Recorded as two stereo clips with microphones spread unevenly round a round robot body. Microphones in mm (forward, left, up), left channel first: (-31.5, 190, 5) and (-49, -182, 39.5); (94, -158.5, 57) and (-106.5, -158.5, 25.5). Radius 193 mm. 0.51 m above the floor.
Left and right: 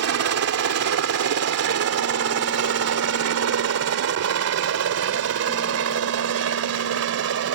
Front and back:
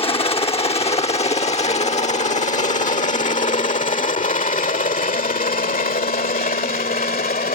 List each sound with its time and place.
0.0 s a helicopter: 60° right; by 7.5 s 40° right